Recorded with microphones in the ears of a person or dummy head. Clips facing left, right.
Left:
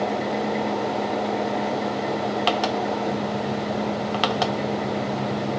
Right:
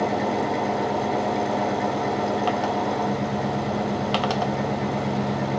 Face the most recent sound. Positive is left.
turn(degrees=-90)